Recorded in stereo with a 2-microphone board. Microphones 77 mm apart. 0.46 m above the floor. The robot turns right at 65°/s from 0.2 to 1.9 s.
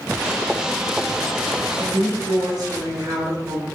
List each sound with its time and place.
1.8 s a woman speaking: 55° right (ahead or behind), 2.5 m; by 3.7 s 50° right (ahead or behind), 2.5 m